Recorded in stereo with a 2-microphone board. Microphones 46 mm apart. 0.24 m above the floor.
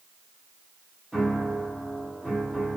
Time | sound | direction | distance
1.1 | a piano | 5° left (ahead or behind) | 1.5 m